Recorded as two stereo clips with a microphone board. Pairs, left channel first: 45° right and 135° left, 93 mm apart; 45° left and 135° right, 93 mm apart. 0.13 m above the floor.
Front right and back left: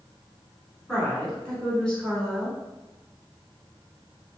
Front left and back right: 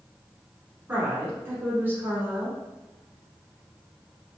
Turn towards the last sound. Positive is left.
turn(degrees=-110)